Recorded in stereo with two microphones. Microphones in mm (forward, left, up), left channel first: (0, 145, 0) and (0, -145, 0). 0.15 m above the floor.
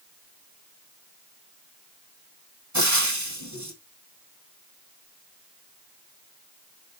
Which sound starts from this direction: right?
Frying, at 2.7 s.